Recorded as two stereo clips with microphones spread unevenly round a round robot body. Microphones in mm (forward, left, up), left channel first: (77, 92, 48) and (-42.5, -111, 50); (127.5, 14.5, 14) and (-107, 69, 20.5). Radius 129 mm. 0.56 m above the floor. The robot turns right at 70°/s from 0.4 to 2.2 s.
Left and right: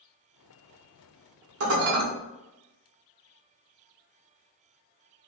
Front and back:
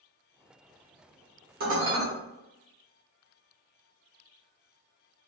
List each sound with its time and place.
1.6 s dishes clattering: 145° right, 1.3 m; by 2.0 s 110° right, 1.3 m